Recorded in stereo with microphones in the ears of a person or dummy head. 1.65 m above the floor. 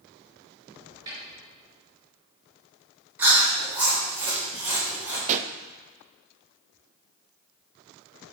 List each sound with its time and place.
1.1 s a snare drum: 25° right (ahead or behind), 4.5 m
3.2 s chewing: 10° right (ahead or behind), 3.5 m
5.3 s a pop: 35° right (ahead or behind), 0.6 m